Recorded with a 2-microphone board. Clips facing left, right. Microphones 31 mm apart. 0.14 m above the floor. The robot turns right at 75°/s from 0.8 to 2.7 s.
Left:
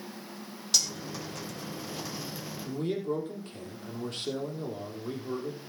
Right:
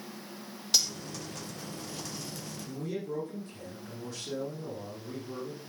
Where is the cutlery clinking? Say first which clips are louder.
Even; 10° right (ahead or behind), 2.5 m; by 0.9 s 20° right (ahead or behind), 2.5 m.